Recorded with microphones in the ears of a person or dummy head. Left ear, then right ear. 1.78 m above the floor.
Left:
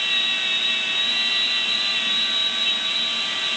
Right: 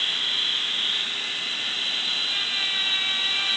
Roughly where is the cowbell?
No cowbell in this recording.